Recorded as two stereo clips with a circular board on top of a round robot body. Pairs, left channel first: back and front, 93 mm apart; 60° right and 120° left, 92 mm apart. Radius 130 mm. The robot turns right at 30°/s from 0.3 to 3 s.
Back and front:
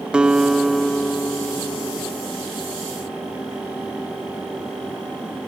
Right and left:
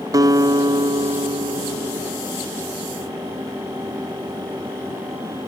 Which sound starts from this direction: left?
A guitar, at 0.1 s.